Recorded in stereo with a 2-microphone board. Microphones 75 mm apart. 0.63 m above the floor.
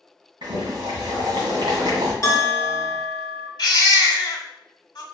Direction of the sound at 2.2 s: 40° left (ahead or behind).